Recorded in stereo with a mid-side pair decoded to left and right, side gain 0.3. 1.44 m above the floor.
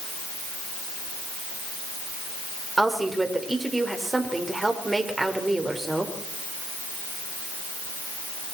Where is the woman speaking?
25° right, 5.5 m.